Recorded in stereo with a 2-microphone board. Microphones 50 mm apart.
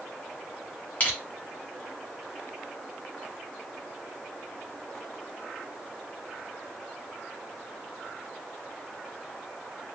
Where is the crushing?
35° left (ahead or behind), 1.2 m.